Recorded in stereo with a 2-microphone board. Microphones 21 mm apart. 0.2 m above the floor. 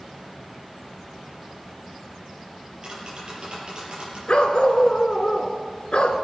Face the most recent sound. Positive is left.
turn(degrees=55)  # may be behind; listen again after turning